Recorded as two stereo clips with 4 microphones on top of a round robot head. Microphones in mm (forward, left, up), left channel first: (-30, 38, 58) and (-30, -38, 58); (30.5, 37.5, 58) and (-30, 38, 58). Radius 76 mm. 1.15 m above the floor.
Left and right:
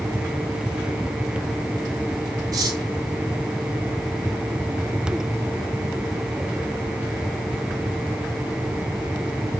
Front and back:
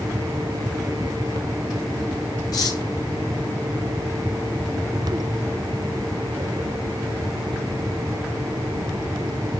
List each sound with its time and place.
2.5 s cutlery clinking: 40° right, 1.5 m